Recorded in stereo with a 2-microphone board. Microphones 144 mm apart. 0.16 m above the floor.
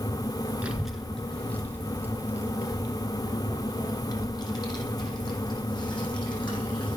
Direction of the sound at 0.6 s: 10° right (ahead or behind).